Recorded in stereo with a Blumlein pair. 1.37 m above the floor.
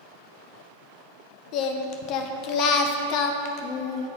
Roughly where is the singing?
Ahead left.